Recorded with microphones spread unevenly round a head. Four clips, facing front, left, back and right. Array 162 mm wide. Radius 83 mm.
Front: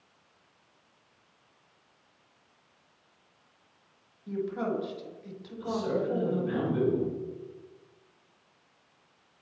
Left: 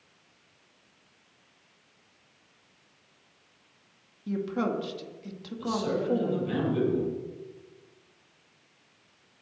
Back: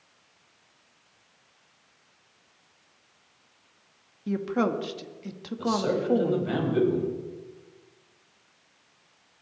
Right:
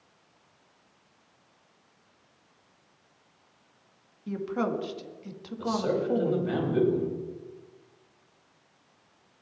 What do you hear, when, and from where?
4.3 s a woman speaking: 175° left, 1.7 m
5.6 s a man speaking: 155° right, 6.5 m